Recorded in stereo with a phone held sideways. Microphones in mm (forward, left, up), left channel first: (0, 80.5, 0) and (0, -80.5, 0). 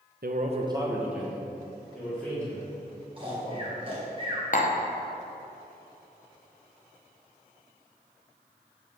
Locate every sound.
0.2 s a man speaking: 70° right (ahead or behind), 0.7 m; by 3.6 s 15° left (ahead or behind), 5 m
3.2 s snoring: 35° right (ahead or behind), 1.7 m
4.5 s tapping: 55° left (ahead or behind), 0.7 m